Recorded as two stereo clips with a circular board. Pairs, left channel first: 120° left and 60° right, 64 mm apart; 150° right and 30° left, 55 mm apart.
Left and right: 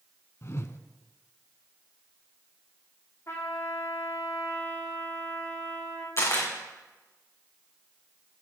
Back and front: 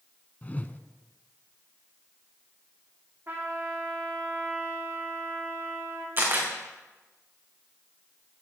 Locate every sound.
0.4 s a whoosh: 155° left, 0.6 m
3.3 s a trumpet: 80° left, 4.5 m
6.2 s a camera shutter: 80° left, 3.5 m